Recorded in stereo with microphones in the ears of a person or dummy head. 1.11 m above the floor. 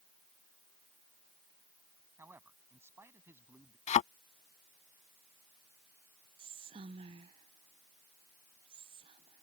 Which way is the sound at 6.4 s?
30° right (ahead or behind).